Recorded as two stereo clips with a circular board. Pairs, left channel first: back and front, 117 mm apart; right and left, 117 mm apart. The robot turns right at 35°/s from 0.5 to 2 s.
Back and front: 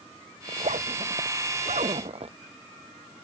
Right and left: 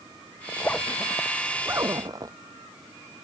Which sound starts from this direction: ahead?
A zipper, at 0.5 s.